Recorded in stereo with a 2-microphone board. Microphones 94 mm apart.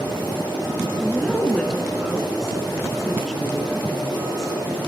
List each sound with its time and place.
1.0 s a woman speaking: 5° left (ahead or behind), 1.1 m